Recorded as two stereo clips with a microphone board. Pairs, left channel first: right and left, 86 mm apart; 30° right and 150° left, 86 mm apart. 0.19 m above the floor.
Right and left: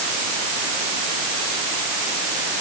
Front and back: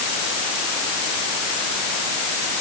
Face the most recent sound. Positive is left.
No sound to turn to.